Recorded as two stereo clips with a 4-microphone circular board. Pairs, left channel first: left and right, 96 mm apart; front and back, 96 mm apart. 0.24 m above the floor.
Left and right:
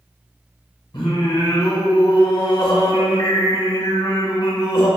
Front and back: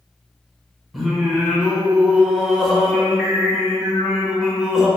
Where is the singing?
90° left, 0.8 m.